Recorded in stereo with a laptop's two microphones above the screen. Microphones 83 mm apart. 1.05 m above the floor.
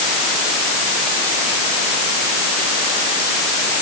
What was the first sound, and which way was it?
Only background noise.